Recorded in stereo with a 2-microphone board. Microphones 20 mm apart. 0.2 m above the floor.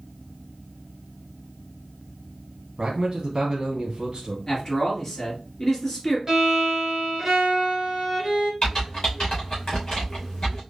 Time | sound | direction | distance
2.8 | a man speaking | 40° right (ahead or behind) | 1.3 m
4.5 | a man speaking | 15° left (ahead or behind) | 3 m
6.3 | a violin | 25° right (ahead or behind) | 2 m
8.6 | typing on a keyboard | 35° left (ahead or behind) | 2.5 m